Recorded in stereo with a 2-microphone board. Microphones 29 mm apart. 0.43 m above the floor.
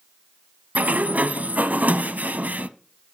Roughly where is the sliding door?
Right.